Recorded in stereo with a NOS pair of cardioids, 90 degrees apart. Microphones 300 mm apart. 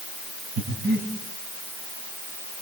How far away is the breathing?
About 7.5 m.